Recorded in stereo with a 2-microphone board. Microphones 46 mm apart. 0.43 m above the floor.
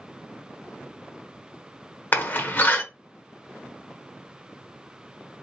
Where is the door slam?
45° left (ahead or behind), 1.0 m.